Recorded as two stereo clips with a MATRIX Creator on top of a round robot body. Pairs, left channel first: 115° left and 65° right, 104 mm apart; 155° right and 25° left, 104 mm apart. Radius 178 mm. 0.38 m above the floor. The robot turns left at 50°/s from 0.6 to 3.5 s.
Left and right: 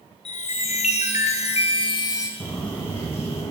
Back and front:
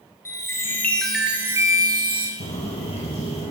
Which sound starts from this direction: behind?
Footsteps, at 2.4 s.